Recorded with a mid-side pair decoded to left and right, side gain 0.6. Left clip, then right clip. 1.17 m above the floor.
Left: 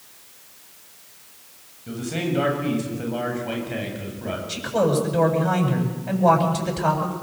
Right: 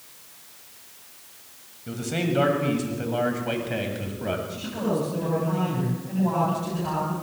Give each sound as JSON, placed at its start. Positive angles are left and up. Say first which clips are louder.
{"t": 1.9, "sound": "a man speaking", "louder": "left 1 dB", "azimuth_deg": -10, "distance_m": 7.5}
{"t": 4.5, "sound": "a man speaking", "louder": "left 7 dB", "azimuth_deg": 65, "distance_m": 8.5}